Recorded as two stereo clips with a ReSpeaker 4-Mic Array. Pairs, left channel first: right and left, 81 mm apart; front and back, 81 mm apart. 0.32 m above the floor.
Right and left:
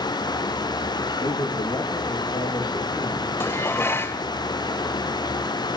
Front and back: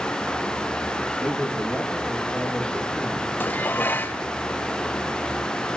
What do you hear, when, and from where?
1.2 s a man speaking: 100° right, 7 m
3.4 s dishes clattering: 50° right, 0.9 m